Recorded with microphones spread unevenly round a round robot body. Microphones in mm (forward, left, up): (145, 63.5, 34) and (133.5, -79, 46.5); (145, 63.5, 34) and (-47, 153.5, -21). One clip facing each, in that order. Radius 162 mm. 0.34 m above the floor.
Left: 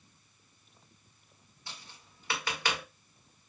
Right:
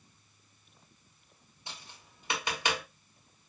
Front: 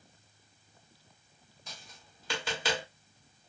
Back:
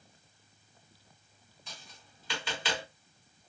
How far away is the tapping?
About 1.4 m.